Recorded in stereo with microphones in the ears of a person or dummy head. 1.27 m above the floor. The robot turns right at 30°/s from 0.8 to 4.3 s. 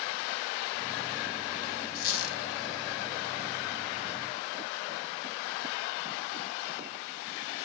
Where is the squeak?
55° left (ahead or behind), 1.2 m; by 2.4 s 60° left (ahead or behind), 1.2 m.